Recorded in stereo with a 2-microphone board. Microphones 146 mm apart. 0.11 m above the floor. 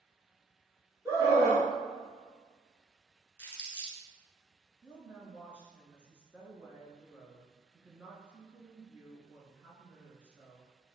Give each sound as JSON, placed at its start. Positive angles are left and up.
{"t": 1.1, "sound": "a scream", "side_deg": -20, "distance_m": 1.2}
{"t": 3.4, "sound": "crumpling", "side_deg": 15, "distance_m": 1.5}
{"t": 4.8, "sound": "a woman speaking", "side_deg": -10, "distance_m": 1.1}